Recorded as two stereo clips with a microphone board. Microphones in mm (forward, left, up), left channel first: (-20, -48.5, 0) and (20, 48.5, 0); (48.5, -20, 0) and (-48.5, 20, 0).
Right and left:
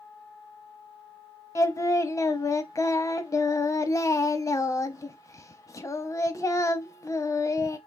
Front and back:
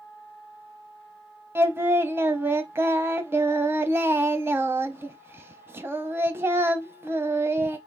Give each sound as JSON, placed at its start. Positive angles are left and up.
{"t": 1.6, "sound": "singing", "azimuth_deg": -150, "distance_m": 0.7}